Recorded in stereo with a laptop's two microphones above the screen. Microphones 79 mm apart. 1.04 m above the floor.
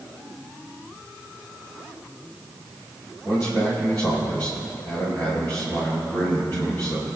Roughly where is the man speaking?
Left.